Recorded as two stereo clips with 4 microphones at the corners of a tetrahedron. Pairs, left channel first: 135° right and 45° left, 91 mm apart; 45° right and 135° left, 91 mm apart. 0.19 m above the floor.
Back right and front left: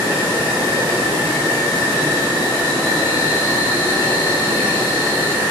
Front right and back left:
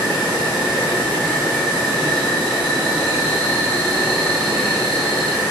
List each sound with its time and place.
0.0 s an insect: 40° left, 1.5 m